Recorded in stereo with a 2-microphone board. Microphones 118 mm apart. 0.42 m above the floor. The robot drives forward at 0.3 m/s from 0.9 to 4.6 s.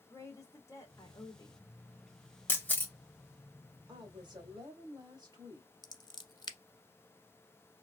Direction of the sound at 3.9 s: 35° right (ahead or behind).